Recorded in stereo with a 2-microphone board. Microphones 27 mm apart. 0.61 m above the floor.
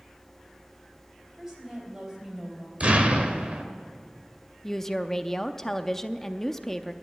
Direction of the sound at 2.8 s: 55° right (ahead or behind).